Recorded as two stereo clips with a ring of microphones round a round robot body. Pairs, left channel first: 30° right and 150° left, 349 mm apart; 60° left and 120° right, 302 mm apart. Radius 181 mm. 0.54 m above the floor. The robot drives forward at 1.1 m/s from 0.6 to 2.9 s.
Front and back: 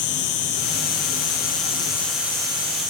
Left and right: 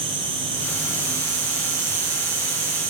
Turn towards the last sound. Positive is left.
turn(degrees=-145)